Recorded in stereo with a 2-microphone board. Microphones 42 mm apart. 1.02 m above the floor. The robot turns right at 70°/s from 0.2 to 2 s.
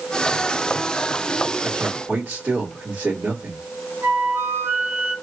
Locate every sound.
1.6 s a man speaking: 25° right (ahead or behind), 1.8 m; by 3.6 s 50° right (ahead or behind), 1.8 m
4.0 s a flute: 80° right, 2 m